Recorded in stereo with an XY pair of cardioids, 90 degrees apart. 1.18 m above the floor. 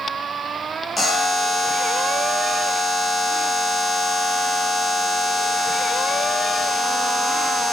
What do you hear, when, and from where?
1.0 s a buzzer: 30° left, 0.8 m